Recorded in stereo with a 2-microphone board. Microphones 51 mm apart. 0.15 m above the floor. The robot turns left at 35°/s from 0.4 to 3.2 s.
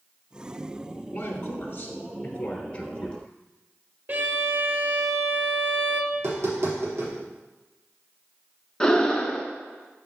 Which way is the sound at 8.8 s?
15° left (ahead or behind).